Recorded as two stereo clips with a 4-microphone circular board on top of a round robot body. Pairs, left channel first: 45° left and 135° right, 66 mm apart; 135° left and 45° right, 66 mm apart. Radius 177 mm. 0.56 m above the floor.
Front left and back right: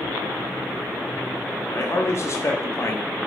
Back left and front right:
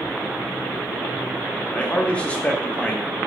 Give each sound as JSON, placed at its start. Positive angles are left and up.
{"t": 1.7, "sound": "a man speaking", "azimuth_deg": 70, "distance_m": 1.1}